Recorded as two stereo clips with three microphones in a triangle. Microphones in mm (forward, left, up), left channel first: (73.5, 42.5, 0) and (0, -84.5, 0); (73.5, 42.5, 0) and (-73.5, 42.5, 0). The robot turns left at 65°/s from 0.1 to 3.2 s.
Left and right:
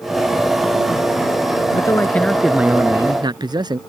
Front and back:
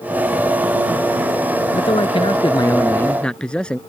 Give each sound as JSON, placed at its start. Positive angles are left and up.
{"t": 1.7, "sound": "a man speaking", "azimuth_deg": 15}